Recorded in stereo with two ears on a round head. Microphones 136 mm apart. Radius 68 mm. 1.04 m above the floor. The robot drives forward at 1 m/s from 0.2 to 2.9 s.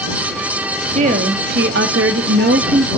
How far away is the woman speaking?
About 1.6 m.